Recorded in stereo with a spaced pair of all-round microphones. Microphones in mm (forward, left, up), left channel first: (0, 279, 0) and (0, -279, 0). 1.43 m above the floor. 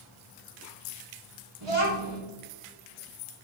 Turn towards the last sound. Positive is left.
turn(degrees=-65)  # may be behind; listen again after turning